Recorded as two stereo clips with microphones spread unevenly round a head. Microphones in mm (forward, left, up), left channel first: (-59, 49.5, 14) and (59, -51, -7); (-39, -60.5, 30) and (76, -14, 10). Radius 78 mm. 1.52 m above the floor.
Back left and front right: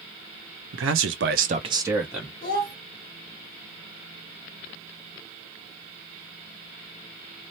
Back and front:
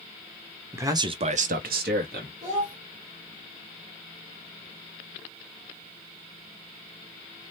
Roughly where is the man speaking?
Ahead right.